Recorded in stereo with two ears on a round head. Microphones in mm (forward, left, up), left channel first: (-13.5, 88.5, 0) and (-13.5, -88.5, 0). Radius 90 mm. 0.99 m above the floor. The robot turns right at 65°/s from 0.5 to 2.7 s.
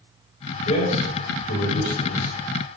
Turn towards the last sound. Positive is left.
turn(degrees=160)